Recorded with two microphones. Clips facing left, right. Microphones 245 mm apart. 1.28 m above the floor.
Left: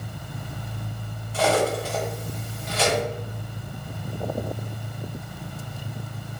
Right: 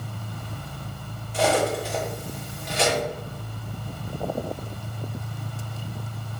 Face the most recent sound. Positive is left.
turn(degrees=-15)  # may be behind; listen again after turning